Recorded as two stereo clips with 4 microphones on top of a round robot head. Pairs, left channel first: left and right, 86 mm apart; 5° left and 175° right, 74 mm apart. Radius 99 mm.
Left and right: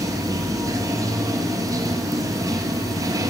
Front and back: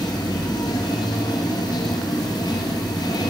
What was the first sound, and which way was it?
Running water, 40° right.